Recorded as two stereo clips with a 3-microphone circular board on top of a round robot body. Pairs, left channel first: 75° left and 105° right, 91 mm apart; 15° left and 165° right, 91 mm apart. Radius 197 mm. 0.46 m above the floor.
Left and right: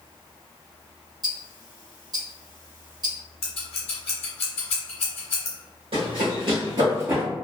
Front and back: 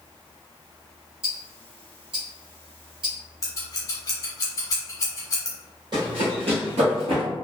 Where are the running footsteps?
125° right, 1.4 m; by 7.2 s 175° left, 0.9 m.